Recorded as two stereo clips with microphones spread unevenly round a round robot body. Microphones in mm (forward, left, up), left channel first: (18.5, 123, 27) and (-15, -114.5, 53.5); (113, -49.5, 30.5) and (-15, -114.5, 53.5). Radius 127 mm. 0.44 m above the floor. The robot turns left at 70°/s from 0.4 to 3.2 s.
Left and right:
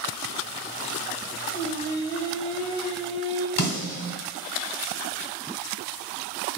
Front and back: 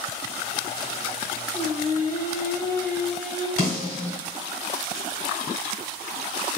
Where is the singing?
70° left, 1.1 m; by 3.5 s 45° right, 1.1 m.